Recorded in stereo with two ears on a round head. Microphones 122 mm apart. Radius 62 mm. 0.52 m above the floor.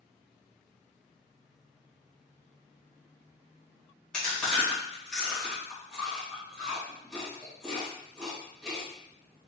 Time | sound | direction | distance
4.1 | chewing | 5° left (ahead or behind) | 1.8 m